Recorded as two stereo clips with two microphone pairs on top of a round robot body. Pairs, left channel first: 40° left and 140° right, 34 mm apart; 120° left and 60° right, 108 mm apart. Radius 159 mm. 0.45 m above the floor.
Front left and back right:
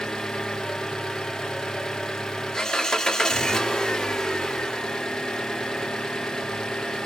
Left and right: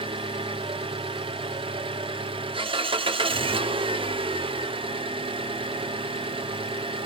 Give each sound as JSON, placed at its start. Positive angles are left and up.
{"t": 0.0, "sound": "an engine running", "azimuth_deg": -25, "distance_m": 1.3}